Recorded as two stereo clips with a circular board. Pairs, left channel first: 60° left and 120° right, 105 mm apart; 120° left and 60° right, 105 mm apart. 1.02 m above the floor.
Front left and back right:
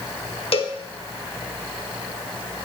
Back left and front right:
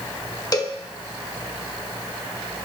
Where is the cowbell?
70° left, 1.0 m.